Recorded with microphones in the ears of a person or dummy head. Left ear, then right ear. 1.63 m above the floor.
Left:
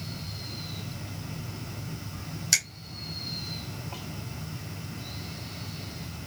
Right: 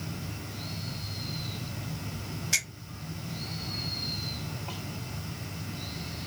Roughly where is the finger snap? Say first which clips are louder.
Left 3 dB; left.